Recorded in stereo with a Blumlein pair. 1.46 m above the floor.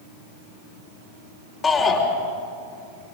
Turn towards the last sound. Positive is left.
turn(degrees=25)